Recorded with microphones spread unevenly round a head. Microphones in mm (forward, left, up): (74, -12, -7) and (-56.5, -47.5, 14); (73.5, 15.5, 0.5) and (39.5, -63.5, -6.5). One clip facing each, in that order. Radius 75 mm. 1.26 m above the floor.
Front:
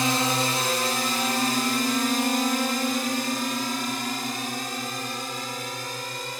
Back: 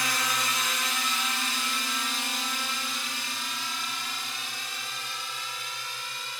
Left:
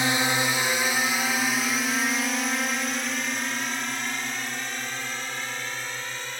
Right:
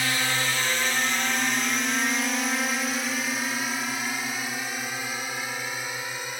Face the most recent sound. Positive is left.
turn(degrees=-30)